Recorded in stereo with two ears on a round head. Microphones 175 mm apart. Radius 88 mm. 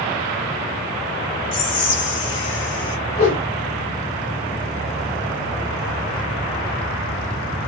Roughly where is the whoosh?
Left.